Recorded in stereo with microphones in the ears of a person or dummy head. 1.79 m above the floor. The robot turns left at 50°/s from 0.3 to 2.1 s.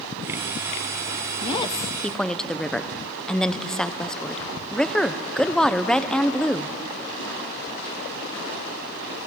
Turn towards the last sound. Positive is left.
turn(degrees=0)